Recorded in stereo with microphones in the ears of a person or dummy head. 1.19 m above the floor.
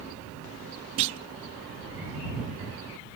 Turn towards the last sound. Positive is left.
turn(degrees=-30)  # may be behind; listen again after turning